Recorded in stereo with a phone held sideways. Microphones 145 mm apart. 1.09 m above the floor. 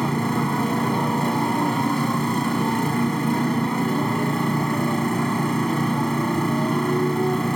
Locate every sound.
0.0 s a motorcycle: centre (ahead or behind)